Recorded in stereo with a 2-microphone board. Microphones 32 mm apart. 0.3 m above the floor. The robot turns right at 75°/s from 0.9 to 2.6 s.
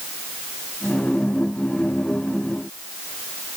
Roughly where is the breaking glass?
I don't hear breaking glass.